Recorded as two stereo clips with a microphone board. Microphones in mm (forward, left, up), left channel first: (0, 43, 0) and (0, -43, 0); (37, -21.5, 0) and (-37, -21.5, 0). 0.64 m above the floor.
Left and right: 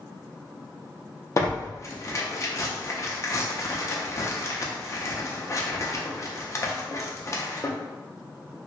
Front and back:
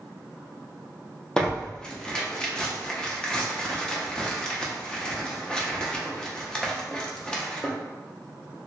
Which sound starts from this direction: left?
Tearing paper, at 1.4 s.